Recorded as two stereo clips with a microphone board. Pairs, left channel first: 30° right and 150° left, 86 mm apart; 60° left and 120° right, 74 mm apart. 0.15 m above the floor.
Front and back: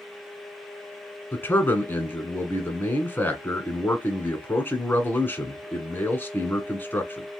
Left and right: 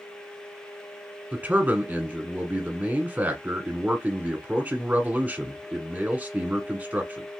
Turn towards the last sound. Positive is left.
turn(degrees=-70)